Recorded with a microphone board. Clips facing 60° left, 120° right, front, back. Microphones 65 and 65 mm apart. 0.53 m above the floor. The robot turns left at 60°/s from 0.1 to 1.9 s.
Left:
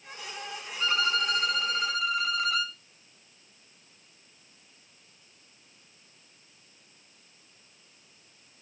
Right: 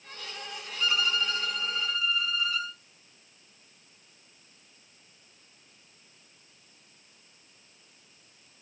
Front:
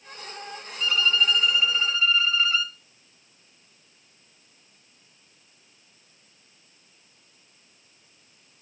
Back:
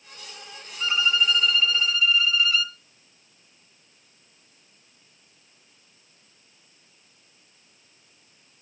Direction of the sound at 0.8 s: 120° left.